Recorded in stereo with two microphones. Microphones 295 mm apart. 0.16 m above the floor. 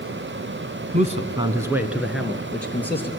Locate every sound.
0.9 s a man speaking: 25° right (ahead or behind), 1.4 m; by 3.1 s 5° left (ahead or behind), 3.5 m